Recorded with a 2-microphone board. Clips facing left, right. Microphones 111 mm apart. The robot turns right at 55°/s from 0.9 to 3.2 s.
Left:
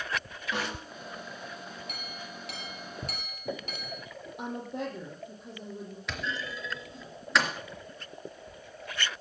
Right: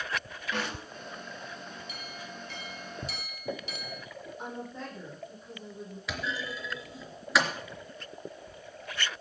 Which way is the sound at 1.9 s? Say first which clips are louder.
Even; 60° left.